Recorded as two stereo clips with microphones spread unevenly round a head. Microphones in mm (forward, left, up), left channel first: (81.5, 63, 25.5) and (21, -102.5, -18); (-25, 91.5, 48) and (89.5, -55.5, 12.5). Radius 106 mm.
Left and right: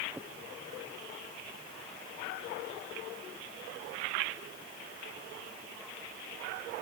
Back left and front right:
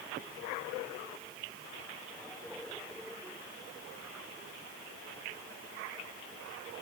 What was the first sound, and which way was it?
Only background noise.